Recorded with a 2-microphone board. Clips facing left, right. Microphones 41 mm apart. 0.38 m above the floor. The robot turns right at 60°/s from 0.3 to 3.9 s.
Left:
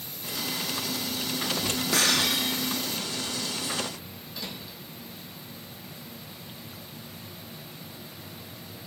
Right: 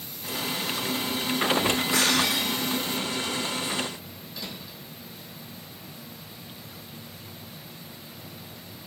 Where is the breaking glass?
100° left, 6.5 m; by 2.5 s 135° left, 6.5 m.